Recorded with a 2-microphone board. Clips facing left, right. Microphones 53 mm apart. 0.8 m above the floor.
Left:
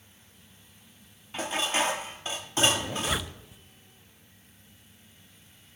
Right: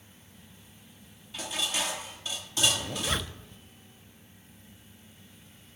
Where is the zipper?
5° left (ahead or behind), 0.7 m.